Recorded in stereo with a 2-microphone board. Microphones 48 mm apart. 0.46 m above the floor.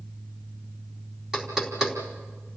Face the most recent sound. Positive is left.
turn(degrees=-10)  # may be behind; listen again after turning